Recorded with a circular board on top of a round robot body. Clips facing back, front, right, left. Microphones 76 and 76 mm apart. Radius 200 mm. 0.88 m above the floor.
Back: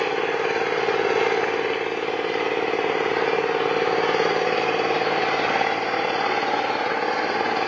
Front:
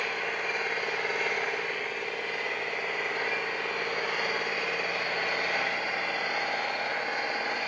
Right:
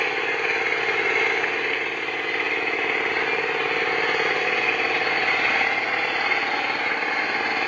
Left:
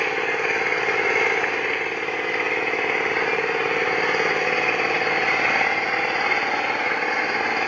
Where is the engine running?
170° left, 0.7 m.